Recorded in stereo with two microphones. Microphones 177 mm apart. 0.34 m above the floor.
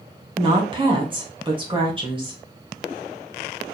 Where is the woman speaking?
30° right (ahead or behind), 1.3 m.